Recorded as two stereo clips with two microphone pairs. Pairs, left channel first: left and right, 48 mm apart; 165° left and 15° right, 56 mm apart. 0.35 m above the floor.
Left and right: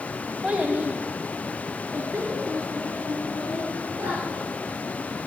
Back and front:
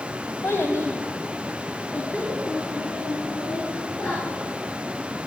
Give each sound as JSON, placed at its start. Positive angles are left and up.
{"t": 0.4, "sound": "a child speaking", "azimuth_deg": -160, "distance_m": 1.3}